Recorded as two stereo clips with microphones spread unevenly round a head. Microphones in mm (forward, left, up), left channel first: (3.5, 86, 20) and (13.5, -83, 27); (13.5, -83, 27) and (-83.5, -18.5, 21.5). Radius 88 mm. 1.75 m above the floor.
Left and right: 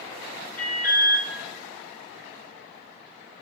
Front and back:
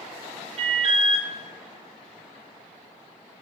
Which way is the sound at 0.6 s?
175° left.